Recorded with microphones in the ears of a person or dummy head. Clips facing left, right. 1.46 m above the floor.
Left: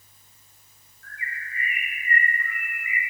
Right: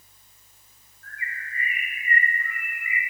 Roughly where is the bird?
Right.